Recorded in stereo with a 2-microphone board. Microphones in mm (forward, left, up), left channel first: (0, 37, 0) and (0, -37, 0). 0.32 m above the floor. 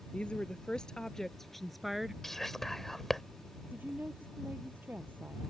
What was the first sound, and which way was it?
A woman speaking, 15° left (ahead or behind).